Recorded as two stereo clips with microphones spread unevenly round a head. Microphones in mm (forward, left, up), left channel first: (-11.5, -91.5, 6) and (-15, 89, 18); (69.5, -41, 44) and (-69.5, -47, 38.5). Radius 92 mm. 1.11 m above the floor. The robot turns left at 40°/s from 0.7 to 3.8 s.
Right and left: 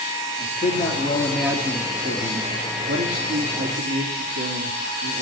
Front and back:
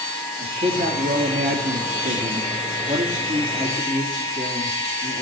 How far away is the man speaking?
About 2.5 m.